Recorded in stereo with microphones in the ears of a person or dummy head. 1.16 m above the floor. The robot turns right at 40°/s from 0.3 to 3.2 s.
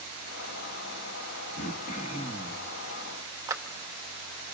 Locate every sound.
1.6 s throat clearing: 115° left, 1.3 m; by 2.7 s 160° left, 1.3 m
3.5 s a clap: 10° right (ahead or behind), 0.9 m